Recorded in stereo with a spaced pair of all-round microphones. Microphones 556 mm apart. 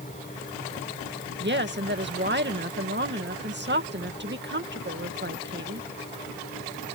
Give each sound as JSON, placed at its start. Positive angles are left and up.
{"t": 0.0, "sound": "a fan", "side_deg": 15}
{"t": 1.4, "sound": "a woman speaking", "side_deg": -20}